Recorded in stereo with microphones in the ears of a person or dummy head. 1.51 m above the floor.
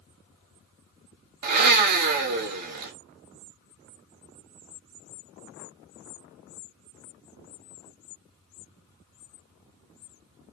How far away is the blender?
About 1.0 m.